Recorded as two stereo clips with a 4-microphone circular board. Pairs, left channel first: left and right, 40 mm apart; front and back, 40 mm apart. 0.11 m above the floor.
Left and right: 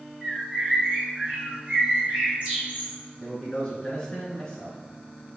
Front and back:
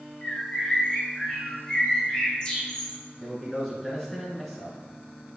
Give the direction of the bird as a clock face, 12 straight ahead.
2 o'clock.